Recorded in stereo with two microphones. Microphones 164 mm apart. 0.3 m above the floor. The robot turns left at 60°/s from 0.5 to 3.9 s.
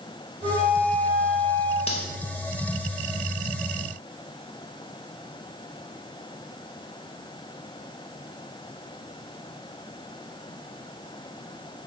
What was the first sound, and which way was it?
A flute, 135° right.